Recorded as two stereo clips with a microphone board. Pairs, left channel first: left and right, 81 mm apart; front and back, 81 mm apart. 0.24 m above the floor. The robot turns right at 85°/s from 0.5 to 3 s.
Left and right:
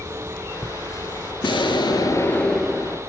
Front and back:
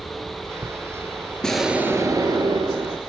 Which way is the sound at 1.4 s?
80° left.